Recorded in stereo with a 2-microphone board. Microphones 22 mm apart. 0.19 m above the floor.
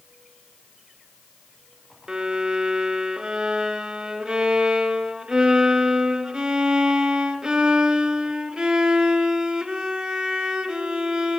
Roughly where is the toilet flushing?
No toilet flushing in this recording.